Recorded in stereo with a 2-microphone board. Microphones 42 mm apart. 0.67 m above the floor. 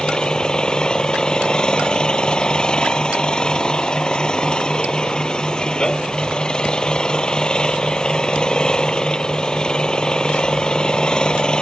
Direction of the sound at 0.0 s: 25° left (ahead or behind).